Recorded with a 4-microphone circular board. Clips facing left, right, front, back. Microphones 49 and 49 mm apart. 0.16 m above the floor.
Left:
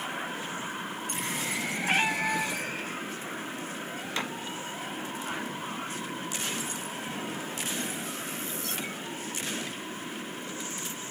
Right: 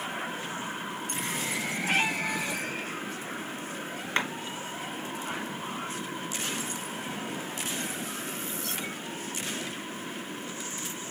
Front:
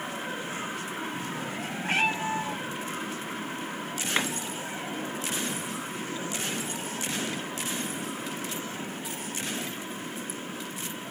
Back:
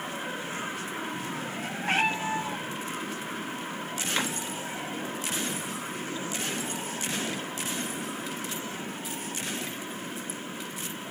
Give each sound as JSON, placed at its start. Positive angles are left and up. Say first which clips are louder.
{"t": 1.8, "sound": "a cat meowing", "louder": "left 1 dB, even", "azimuth_deg": 165, "distance_m": 3.0}
{"t": 4.2, "sound": "a clap", "louder": "right 5 dB, front 2 dB", "azimuth_deg": -60, "distance_m": 1.9}